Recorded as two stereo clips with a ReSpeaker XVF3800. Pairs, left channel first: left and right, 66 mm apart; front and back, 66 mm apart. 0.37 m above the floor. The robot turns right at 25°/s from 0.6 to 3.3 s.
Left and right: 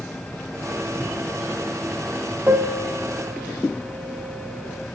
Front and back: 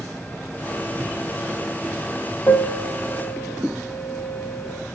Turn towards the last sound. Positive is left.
turn(degrees=-20)